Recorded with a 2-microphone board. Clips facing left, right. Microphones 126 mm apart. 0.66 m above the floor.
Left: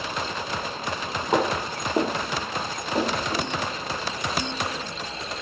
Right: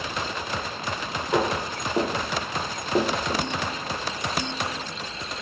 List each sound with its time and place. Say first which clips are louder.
1.3 s footsteps: left 1 dB; 40° left (ahead or behind), 1.0 m; by 3.5 s 60° right (ahead or behind), 1.3 m